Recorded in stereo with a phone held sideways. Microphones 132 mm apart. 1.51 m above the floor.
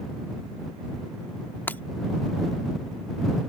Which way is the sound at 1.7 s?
15° left (ahead or behind).